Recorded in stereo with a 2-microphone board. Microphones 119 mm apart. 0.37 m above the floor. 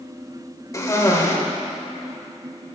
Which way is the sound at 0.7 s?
25° left (ahead or behind).